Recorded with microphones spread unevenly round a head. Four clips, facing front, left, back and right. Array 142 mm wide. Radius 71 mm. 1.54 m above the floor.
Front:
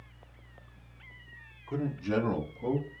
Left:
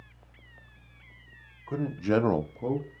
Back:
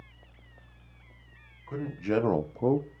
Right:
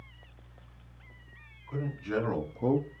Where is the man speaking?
90° left, 1.1 m; by 2.9 s 150° right, 0.7 m.